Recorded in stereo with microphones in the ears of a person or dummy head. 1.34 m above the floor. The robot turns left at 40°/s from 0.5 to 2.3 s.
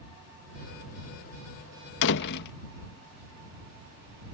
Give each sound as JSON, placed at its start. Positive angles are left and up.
{"t": 2.0, "sound": "a door slam", "side_deg": 70}